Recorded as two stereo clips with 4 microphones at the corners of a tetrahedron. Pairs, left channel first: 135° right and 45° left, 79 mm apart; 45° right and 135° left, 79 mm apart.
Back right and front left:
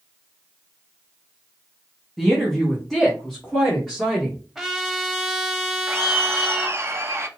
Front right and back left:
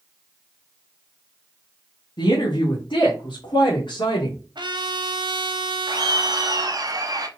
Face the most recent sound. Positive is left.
turn(degrees=100)